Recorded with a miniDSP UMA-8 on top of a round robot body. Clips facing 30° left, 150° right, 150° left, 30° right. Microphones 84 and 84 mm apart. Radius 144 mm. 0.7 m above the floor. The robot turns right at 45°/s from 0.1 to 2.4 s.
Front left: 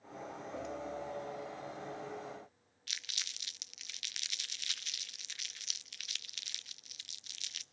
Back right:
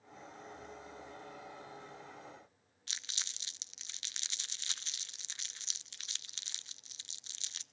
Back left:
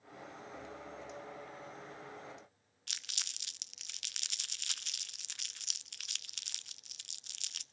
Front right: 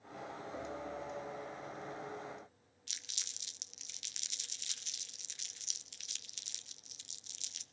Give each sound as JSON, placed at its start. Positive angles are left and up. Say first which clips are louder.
{"t": 2.9, "sound": "crumpling", "louder": "even, back left 5 dB", "azimuth_deg": 155, "distance_m": 0.9}